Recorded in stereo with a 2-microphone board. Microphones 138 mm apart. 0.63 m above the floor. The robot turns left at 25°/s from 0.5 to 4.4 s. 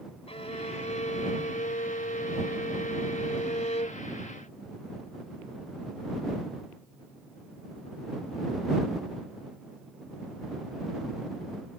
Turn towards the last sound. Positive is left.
turn(degrees=35)